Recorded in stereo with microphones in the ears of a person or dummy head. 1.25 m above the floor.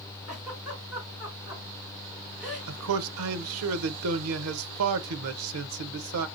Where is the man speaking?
85° right, 0.7 m.